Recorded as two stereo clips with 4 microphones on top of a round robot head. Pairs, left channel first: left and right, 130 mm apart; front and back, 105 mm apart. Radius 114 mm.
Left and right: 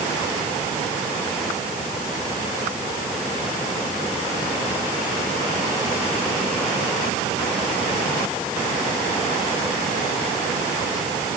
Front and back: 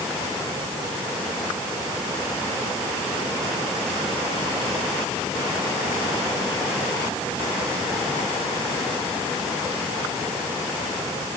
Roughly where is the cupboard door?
I don't hear a cupboard door.